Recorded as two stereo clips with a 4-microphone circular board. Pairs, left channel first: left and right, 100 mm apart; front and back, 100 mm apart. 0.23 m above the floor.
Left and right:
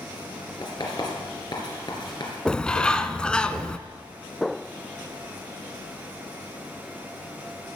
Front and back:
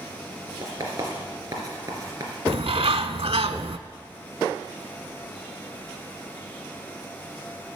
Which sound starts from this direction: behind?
A bird, at 2.5 s.